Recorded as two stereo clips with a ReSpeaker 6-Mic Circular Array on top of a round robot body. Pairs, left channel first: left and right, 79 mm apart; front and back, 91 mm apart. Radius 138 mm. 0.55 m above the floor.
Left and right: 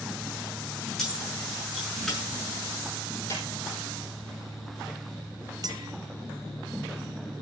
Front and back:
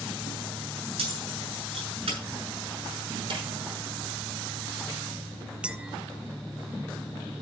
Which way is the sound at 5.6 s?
105° right.